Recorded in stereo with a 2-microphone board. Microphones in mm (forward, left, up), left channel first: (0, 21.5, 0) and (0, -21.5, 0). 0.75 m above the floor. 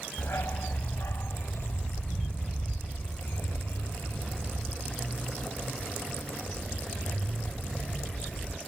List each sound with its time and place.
0.2 s a dog barking: 75° left (ahead or behind); by 8.6 s 55° left (ahead or behind)